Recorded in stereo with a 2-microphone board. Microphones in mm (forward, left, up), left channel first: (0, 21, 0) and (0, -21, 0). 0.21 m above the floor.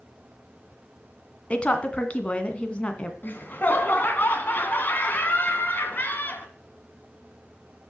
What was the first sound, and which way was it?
A woman speaking, 30° left (ahead or behind).